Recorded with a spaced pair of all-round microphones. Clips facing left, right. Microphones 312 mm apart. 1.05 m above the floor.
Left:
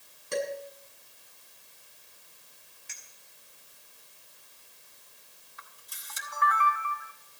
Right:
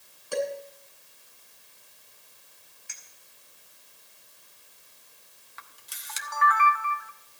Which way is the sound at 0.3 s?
25° left (ahead or behind).